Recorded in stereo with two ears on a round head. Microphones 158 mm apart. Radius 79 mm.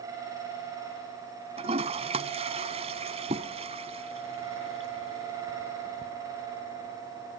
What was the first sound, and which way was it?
A toilet flushing, 35° right (ahead or behind).